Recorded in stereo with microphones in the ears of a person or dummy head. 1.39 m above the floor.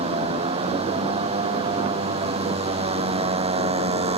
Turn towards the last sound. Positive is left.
turn(degrees=-35)  # may be behind; listen again after turning